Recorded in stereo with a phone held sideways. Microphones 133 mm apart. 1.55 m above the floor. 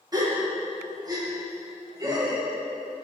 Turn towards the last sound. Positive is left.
turn(degrees=-30)  # may be behind; listen again after turning